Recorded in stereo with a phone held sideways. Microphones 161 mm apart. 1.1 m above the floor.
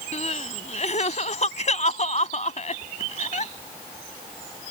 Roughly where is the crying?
Left.